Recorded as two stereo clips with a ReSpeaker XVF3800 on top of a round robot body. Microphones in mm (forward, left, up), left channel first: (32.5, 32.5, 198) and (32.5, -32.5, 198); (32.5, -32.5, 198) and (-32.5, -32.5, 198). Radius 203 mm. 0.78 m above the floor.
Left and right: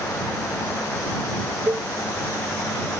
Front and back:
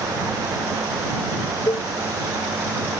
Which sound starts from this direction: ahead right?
A cowbell, at 1.7 s.